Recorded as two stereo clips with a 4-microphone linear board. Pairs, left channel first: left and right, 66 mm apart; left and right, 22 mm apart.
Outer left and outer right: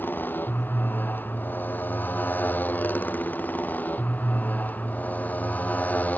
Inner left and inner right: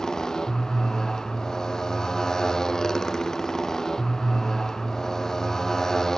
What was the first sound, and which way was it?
A motorcycle, 25° left (ahead or behind).